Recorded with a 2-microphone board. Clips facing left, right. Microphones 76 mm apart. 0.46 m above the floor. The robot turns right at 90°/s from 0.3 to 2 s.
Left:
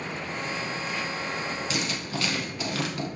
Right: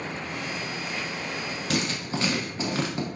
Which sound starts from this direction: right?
Writing, at 1.7 s.